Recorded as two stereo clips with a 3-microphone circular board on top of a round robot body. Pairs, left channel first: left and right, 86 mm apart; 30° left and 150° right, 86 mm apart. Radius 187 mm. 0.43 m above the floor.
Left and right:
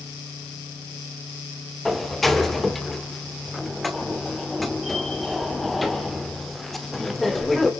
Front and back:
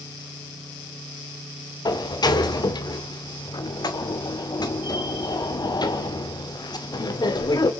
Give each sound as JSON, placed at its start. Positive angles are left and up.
{"t": 1.9, "sound": "a sliding door", "azimuth_deg": 0, "distance_m": 2.0}